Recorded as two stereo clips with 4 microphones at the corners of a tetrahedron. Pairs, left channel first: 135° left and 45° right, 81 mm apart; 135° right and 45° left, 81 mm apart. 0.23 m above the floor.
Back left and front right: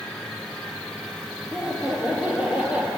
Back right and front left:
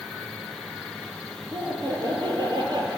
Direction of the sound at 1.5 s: 30° left.